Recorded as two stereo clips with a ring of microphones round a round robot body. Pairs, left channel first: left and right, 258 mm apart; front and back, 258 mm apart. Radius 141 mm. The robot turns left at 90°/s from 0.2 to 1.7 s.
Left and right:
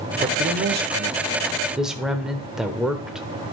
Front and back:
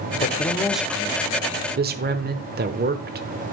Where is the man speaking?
40° right, 0.9 m; by 3.3 s 175° right, 0.9 m.